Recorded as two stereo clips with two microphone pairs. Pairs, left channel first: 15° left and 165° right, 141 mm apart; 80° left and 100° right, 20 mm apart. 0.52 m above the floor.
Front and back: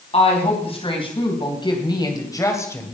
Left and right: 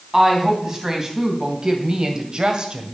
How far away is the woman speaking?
About 3 m.